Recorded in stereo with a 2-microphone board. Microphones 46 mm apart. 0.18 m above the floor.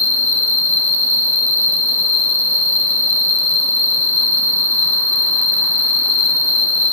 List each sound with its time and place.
0.0 s an insect: 50° left (ahead or behind), 0.8 m